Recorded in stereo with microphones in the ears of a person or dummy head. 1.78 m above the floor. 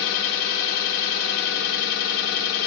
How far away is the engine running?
About 0.9 m.